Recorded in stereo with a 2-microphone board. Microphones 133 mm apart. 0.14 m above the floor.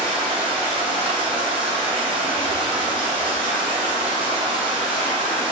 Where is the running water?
40° right (ahead or behind), 1.8 m.